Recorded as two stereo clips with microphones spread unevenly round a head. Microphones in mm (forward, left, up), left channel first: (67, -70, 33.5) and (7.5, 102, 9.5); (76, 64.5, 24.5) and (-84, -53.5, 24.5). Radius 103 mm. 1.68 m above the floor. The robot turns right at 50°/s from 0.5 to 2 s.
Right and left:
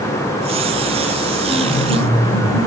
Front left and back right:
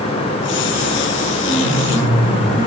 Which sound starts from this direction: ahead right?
A piano, at 1.5 s.